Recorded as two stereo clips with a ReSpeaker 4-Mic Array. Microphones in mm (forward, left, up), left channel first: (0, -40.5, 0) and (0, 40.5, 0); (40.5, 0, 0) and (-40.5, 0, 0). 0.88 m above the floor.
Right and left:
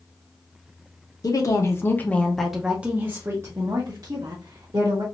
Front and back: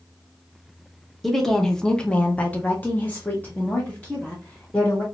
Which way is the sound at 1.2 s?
85° right.